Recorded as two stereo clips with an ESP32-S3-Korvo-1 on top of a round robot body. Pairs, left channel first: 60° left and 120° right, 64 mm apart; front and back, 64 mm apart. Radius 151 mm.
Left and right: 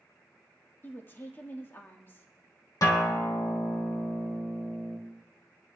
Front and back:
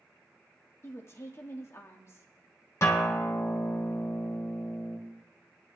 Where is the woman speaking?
20° left, 1.5 m.